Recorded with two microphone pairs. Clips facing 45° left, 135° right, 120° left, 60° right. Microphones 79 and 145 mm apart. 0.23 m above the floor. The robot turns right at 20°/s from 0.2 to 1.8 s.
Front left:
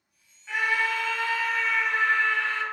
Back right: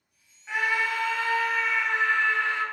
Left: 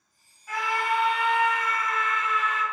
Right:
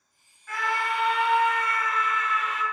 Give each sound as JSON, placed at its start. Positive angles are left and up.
{"t": 0.5, "sound": "a scream", "azimuth_deg": -175, "distance_m": 1.4}